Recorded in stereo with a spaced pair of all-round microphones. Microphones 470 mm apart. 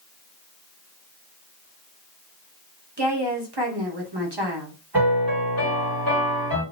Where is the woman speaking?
60° right (ahead or behind), 1.2 m.